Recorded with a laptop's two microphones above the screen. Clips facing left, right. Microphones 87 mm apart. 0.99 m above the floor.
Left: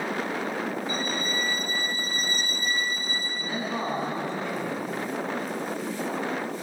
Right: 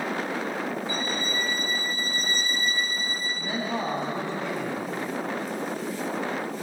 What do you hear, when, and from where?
0.9 s a violin: 30° right (ahead or behind), 6 m
3.4 s a man speaking: 70° right (ahead or behind), 8.5 m